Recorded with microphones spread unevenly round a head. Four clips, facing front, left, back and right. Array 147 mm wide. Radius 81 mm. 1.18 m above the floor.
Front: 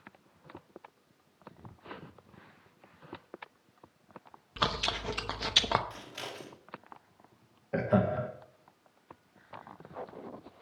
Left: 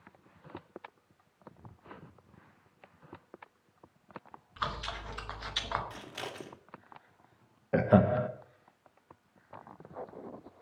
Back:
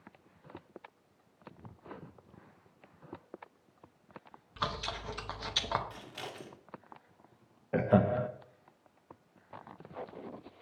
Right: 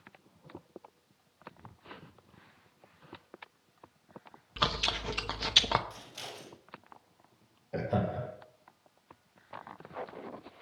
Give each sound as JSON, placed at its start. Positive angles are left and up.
{"t": 4.6, "sound": "chewing", "azimuth_deg": -50, "distance_m": 0.8}
{"t": 5.9, "sound": "scissors", "azimuth_deg": 60, "distance_m": 1.7}
{"t": 7.7, "sound": "laughter", "azimuth_deg": 60, "distance_m": 1.2}